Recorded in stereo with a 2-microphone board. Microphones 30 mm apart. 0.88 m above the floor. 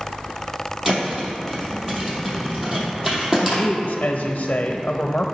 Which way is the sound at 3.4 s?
55° left (ahead or behind).